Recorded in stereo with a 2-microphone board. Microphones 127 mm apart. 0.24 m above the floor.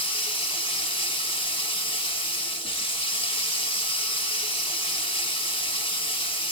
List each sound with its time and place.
0.0 s running water: 40° left (ahead or behind), 0.9 m